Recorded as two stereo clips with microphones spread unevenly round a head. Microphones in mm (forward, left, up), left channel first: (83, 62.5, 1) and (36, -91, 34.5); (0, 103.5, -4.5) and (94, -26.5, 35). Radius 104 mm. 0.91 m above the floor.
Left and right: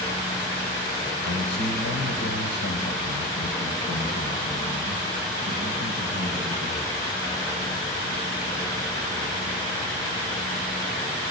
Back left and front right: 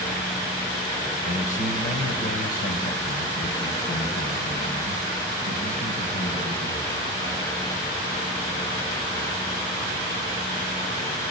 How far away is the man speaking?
About 3 m.